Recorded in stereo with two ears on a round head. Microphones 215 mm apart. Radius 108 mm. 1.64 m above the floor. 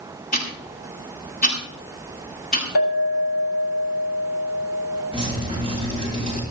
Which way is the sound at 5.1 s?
30° left (ahead or behind).